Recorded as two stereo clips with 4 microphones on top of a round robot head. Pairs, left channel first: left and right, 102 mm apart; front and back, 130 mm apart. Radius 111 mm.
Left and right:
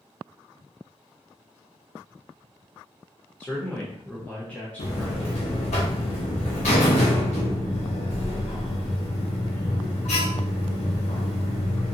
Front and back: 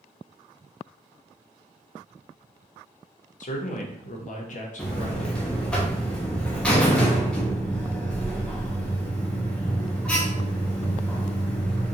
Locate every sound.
3.4 s a man speaking: 10° left, 0.8 m
4.8 s a buzzer: 80° left, 0.5 m